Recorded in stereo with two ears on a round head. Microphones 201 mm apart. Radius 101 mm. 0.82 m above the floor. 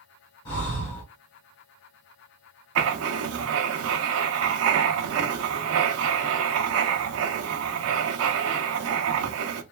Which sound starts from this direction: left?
Breathing, at 0.5 s.